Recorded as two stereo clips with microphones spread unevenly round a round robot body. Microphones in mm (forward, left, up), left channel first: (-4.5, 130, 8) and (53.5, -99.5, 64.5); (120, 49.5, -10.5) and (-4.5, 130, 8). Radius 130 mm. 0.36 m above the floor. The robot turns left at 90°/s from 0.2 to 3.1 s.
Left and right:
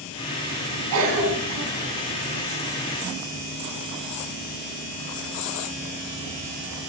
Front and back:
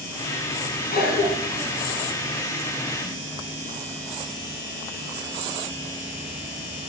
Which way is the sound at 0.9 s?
50° right.